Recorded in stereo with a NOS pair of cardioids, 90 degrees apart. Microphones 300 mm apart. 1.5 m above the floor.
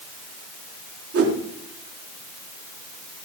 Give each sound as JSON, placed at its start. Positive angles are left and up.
{"t": 1.1, "sound": "a whoosh", "azimuth_deg": -50, "distance_m": 3.5}